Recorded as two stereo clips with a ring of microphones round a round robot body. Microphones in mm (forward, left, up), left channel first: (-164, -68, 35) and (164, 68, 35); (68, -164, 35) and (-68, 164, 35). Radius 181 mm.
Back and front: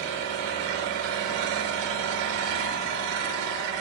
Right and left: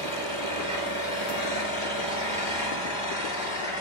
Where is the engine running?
35° left, 4 m.